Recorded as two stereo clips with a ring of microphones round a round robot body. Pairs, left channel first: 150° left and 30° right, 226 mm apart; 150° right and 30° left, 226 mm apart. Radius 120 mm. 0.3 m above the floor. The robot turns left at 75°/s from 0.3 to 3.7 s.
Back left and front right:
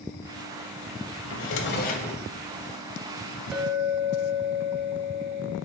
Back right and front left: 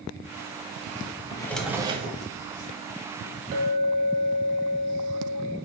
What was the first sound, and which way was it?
A drawer, 145° left.